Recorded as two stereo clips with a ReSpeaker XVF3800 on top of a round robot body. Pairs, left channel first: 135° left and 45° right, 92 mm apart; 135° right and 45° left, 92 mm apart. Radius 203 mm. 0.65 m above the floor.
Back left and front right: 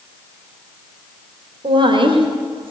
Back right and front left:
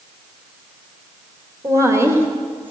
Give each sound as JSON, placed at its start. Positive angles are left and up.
{"t": 1.6, "sound": "a woman speaking", "azimuth_deg": -10, "distance_m": 3.0}